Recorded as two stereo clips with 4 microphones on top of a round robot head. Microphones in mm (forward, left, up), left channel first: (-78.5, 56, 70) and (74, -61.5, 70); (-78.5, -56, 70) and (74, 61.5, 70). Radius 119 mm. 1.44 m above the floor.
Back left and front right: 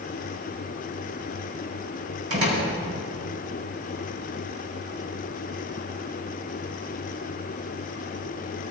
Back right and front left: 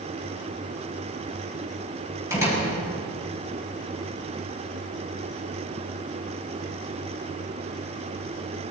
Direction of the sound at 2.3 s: 40° right.